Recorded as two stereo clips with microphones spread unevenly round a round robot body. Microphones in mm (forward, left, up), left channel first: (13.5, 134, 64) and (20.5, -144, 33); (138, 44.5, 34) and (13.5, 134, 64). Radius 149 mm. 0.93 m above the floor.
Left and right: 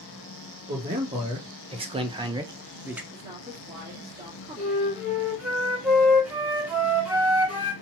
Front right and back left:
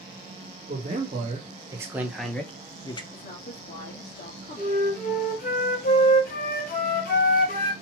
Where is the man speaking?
155° right, 1.6 m; by 3.0 s 15° right, 1.0 m.